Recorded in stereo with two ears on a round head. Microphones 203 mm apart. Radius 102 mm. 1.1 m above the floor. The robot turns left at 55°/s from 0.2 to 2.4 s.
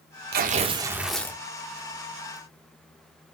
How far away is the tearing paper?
About 0.6 m.